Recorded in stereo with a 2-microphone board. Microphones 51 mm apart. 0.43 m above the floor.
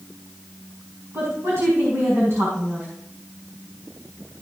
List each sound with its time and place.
1.1 s a woman speaking: 60° right (ahead or behind), 4.5 m